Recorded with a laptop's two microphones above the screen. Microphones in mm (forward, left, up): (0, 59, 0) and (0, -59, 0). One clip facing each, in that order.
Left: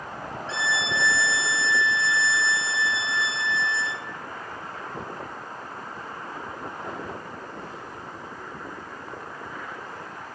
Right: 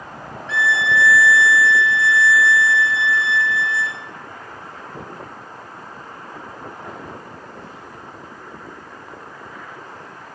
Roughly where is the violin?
Left.